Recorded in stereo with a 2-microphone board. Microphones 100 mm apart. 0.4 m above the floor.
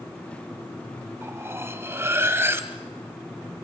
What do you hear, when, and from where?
1.2 s cutlery clinking: 25° right (ahead or behind), 1.1 m